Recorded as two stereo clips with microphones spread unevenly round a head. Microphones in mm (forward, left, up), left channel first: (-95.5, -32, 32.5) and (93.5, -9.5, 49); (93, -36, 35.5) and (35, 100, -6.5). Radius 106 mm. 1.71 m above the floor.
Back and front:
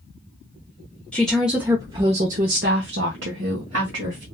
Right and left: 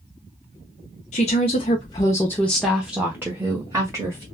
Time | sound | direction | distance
1.1 | a woman speaking | 85° right | 0.9 m